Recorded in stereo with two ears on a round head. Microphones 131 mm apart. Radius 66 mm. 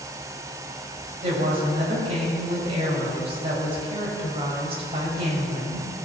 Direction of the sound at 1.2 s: 45° right (ahead or behind).